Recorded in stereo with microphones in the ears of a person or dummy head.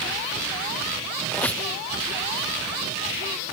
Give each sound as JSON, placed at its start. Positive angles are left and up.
{"t": 1.3, "sound": "a squeak", "side_deg": 10, "distance_m": 0.6}